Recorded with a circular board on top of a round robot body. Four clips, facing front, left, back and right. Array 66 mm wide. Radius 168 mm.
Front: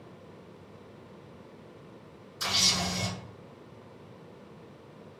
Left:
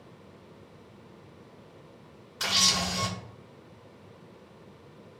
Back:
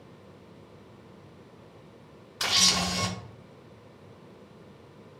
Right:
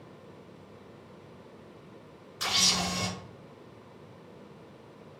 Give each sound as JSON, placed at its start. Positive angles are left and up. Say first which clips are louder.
{"t": 2.4, "sound": "a camera shutter", "louder": "left 1 dB, back 3 dB", "azimuth_deg": 165, "distance_m": 1.0}